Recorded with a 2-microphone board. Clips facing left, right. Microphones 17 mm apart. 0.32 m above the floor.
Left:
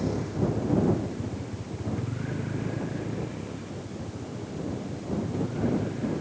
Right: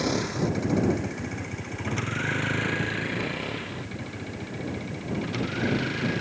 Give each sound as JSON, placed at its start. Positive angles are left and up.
{"t": 0.0, "sound": "a vehicle", "side_deg": -65}